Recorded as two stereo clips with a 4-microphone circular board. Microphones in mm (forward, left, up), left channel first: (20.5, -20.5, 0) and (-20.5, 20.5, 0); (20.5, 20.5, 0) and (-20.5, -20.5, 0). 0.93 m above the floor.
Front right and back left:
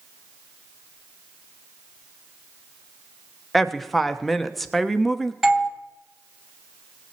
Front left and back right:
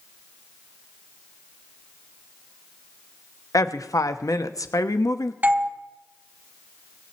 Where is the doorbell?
145° right, 1.3 m.